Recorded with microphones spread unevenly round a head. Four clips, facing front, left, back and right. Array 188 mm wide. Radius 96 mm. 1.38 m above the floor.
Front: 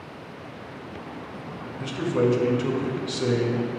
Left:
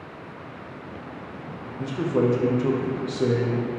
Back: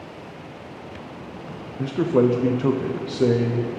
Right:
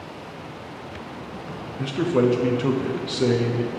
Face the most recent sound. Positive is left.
turn(degrees=-175)